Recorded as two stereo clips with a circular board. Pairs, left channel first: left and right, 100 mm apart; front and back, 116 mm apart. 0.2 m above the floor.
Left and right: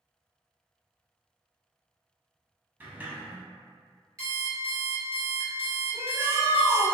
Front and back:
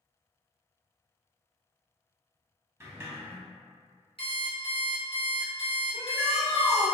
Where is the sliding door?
140° right, 0.6 m.